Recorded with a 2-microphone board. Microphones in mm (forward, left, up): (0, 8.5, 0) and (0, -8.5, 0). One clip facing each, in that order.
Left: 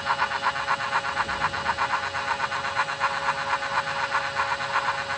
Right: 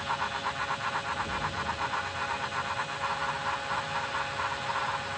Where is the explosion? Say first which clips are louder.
Left 6 dB; 35° left (ahead or behind), 8.5 m.